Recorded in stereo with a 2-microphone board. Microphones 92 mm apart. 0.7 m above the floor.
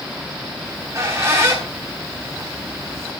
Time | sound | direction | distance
0.6 | a squeak | 30° right (ahead or behind) | 4 m